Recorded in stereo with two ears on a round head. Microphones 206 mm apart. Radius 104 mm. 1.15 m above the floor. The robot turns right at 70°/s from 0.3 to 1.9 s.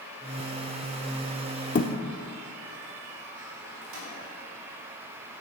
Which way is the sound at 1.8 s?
35° left (ahead or behind).